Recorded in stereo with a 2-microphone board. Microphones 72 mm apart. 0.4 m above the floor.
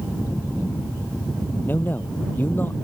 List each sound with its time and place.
1.7 s a man speaking: 30° left (ahead or behind)